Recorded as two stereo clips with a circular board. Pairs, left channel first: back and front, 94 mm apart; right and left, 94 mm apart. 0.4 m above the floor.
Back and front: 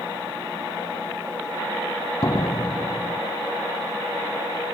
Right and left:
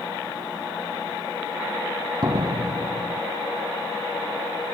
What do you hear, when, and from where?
2.2 s a door slam: 135° left